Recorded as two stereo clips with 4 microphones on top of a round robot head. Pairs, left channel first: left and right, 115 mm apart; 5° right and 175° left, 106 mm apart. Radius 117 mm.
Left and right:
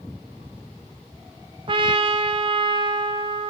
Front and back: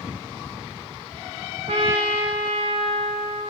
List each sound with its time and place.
1.7 s a trumpet: 135° right, 0.7 m